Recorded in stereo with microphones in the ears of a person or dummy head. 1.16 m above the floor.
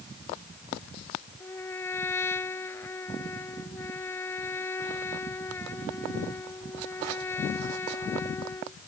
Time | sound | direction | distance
1.4 | a trumpet | 15° left (ahead or behind) | ?